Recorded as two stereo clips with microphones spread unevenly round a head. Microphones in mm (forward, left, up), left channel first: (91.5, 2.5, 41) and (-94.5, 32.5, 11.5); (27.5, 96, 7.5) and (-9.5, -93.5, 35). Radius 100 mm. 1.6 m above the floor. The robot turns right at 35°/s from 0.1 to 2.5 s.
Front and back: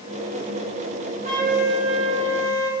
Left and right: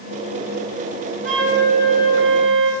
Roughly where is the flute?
Behind right.